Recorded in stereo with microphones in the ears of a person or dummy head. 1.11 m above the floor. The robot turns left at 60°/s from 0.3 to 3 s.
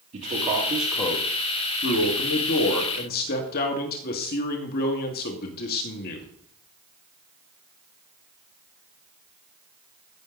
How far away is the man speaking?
About 1.8 m.